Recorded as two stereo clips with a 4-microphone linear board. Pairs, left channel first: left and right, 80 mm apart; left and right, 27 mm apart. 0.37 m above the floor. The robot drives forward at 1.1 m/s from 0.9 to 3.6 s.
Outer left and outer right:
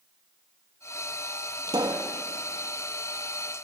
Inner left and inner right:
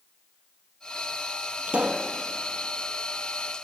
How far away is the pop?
About 2.0 m.